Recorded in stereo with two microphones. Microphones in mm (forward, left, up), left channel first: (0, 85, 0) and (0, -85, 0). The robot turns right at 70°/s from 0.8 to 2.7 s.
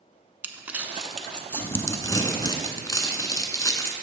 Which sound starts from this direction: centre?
Crumpling, at 0.4 s.